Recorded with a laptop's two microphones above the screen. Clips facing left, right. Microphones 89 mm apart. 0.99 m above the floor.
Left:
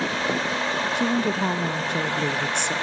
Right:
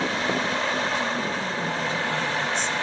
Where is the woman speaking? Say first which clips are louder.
Left 4 dB; 65° left (ahead or behind), 0.5 m.